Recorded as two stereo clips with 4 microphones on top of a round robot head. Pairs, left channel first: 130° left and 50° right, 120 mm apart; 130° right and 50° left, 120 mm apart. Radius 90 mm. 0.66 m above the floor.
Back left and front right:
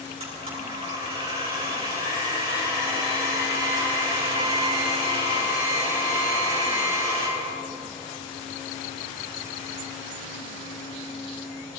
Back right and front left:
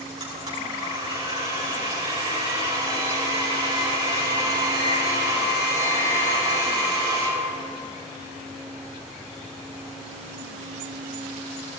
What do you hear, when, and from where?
0.2 s a blender: 5° right, 9 m